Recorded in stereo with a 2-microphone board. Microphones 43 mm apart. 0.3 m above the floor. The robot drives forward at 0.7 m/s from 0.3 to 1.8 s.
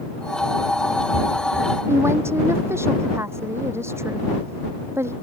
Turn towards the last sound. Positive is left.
turn(degrees=-85)